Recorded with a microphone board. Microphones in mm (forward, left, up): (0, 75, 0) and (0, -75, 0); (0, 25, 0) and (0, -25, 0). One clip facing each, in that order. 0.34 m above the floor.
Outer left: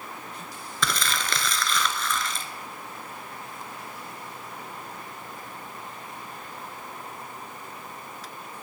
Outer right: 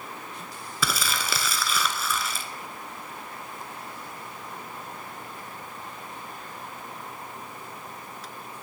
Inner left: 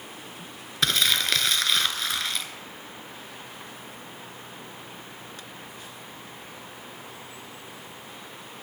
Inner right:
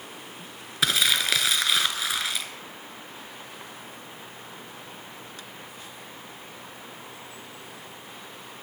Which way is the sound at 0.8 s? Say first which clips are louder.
Even, even; 5° right (ahead or behind).